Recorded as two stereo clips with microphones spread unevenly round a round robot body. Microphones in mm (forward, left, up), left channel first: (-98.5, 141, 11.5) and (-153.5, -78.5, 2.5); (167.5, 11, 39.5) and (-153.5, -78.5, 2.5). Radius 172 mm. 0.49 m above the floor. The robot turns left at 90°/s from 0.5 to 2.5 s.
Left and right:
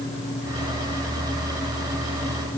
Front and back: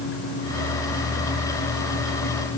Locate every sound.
Only background noise.